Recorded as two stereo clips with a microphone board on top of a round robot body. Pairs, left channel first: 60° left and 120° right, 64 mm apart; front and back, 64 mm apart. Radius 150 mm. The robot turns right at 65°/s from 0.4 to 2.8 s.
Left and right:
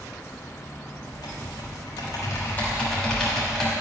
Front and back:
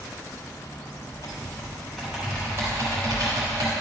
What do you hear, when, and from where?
1.1 s typing on a keyboard: 30° left, 1.2 m; by 3.7 s 140° left, 1.2 m